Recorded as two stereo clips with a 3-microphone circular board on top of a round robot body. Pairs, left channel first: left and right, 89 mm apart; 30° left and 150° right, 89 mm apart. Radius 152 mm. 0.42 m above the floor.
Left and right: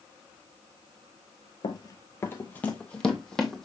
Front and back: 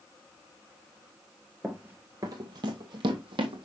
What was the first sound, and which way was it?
Running footsteps, 125° left.